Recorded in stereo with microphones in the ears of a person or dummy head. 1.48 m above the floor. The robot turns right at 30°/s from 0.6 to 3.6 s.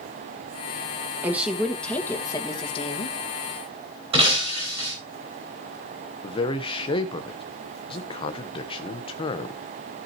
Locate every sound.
1.2 s a woman speaking: 15° right, 1.9 m; by 3.2 s 40° left, 1.9 m
4.1 s breaking glass: 35° right (ahead or behind), 4.5 m
6.2 s a man speaking: 30° left (ahead or behind), 1.2 m